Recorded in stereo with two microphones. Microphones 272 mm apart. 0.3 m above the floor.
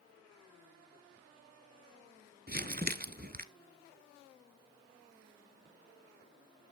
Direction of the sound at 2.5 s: 35° right (ahead or behind).